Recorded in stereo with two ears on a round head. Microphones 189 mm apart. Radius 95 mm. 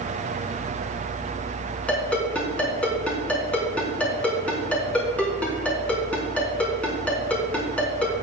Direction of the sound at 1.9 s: 5° left (ahead or behind).